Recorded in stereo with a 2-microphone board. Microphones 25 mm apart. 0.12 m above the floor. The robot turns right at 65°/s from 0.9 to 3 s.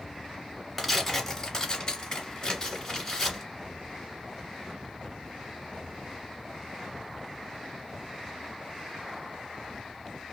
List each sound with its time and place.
0.8 s tearing paper: 5° left, 1.8 m; by 3.4 s 140° left, 1.8 m